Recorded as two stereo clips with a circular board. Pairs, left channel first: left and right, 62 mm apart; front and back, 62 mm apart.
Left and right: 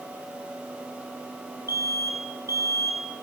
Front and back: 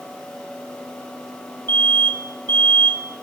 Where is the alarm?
50° right, 6 m.